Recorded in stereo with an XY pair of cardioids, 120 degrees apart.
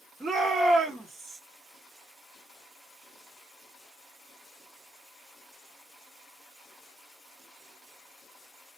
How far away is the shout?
About 2.5 m.